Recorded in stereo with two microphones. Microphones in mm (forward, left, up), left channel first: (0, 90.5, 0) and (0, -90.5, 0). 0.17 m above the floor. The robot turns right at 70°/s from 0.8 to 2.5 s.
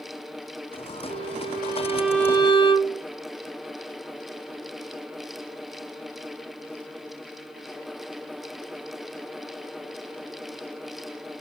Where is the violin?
75° right, 3 m; by 3.0 s 25° left, 3 m.